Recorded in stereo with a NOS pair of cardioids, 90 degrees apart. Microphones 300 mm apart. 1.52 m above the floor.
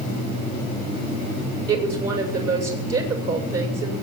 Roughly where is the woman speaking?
Ahead right.